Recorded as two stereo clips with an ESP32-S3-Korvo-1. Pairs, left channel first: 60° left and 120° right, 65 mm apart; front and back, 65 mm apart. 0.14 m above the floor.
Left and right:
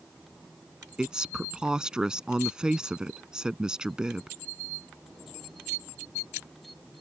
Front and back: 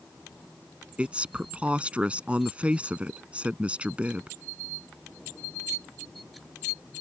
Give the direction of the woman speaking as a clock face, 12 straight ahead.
6 o'clock.